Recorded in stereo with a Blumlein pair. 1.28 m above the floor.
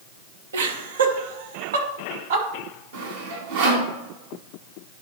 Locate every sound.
0.5 s laughter: 65° right, 1.4 m; by 2.5 s 60° right, 2.5 m
2.9 s sawing: 60° right, 2.5 m